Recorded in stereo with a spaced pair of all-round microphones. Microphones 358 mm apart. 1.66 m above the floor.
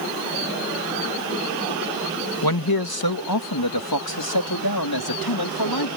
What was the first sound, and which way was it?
A man speaking, 75° left (ahead or behind).